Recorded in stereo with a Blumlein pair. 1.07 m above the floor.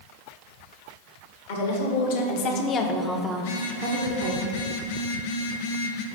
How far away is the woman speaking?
About 1.5 m.